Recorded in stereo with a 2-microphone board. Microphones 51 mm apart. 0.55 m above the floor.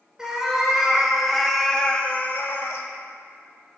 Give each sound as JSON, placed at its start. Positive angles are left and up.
{"t": 0.2, "sound": "a cat meowing", "side_deg": -15, "distance_m": 1.2}